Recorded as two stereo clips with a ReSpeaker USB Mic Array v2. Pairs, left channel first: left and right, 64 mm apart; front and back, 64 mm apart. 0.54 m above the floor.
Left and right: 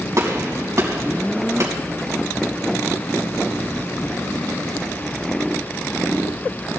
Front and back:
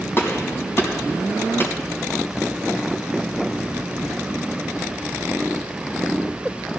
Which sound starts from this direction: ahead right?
A gunshot, at 0.2 s.